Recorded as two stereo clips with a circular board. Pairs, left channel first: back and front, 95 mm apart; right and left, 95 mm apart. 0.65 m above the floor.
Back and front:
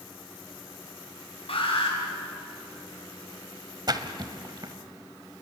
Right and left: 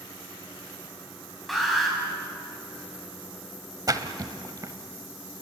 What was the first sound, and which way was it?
An alarm, straight behind.